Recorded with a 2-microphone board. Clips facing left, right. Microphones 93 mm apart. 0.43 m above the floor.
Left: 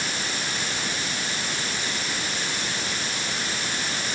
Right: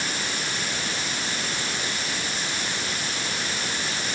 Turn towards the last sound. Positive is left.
No sound to turn to.